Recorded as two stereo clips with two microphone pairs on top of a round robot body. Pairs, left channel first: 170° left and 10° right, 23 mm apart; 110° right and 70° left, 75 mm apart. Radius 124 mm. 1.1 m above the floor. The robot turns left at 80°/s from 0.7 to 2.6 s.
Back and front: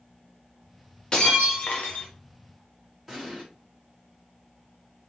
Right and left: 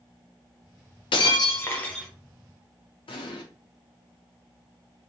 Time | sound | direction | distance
1.1 | breaking glass | 130° right | 0.7 m
3.1 | an explosion | 90° right | 0.6 m